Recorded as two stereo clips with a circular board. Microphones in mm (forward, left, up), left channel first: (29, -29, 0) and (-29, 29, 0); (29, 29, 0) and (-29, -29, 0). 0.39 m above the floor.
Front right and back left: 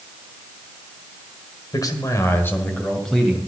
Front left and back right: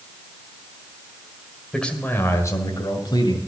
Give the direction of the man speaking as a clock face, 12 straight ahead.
1 o'clock.